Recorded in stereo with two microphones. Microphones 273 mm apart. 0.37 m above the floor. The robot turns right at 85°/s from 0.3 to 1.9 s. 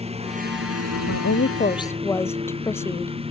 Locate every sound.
0.0 s a lawn mower: 155° right; by 3.3 s 20° right
1.1 s a woman speaking: 100° left; by 3.1 s 170° left